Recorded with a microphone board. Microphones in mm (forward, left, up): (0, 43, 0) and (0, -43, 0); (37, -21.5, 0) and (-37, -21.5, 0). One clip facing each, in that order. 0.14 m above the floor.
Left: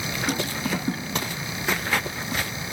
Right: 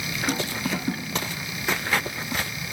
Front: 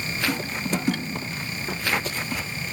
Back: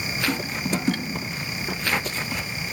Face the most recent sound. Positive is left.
No sound to turn to.